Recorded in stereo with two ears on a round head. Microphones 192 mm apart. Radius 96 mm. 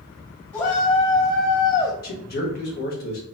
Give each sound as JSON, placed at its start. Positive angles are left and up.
{"t": 0.5, "sound": "a shout", "side_deg": 15, "distance_m": 1.6}
{"t": 2.0, "sound": "a man speaking", "side_deg": 45, "distance_m": 1.3}